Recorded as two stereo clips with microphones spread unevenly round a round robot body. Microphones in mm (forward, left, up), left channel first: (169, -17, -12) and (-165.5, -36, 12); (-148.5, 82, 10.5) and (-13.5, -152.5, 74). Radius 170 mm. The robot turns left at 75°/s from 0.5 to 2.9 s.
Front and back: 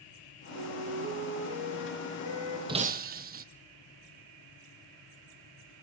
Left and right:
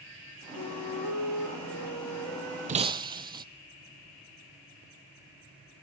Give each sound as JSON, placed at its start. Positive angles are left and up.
{"t": 0.5, "sound": "a flute", "azimuth_deg": 155, "distance_m": 7.0}
{"t": 2.7, "sound": "breaking glass", "azimuth_deg": -105, "distance_m": 0.9}